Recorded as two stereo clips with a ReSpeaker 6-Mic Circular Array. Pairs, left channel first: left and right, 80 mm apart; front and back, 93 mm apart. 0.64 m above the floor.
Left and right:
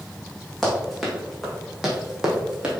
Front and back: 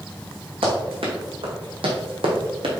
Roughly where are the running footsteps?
Behind.